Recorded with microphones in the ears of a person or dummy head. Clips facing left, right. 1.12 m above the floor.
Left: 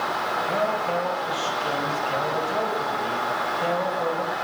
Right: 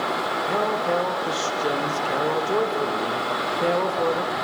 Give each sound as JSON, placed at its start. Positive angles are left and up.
{"t": 0.5, "sound": "a man speaking", "side_deg": -65, "distance_m": 3.0}